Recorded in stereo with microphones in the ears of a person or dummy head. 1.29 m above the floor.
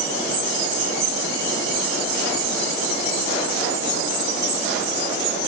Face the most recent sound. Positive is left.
No sound to turn to.